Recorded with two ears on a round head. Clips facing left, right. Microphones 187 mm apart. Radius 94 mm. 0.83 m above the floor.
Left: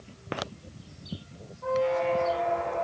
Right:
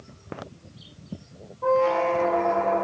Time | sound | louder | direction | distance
1.6 | a squeak | right 5 dB | 60° right (ahead or behind) | 2.5 m